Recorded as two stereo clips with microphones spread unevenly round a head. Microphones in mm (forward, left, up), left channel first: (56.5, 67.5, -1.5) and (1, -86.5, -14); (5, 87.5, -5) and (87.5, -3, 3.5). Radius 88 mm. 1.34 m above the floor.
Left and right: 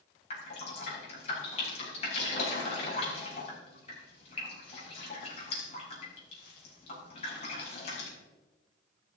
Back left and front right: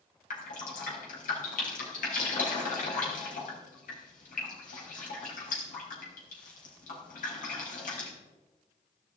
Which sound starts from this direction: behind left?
Dripping, at 0.3 s.